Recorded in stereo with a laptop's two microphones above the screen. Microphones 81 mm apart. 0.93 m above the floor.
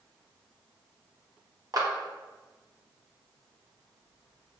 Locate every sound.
1.7 s a clap: 50° right (ahead or behind), 0.5 m